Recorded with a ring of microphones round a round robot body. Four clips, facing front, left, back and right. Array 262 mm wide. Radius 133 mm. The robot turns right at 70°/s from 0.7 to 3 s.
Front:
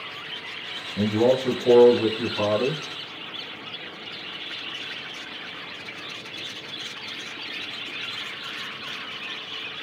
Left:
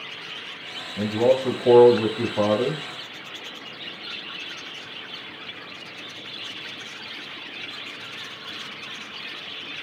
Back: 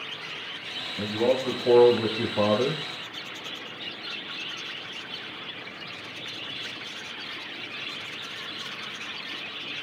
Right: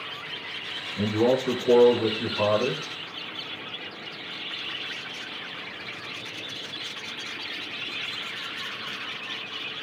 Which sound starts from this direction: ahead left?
A man speaking, at 1.0 s.